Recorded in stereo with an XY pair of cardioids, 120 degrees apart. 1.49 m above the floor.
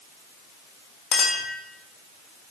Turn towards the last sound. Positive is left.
turn(degrees=45)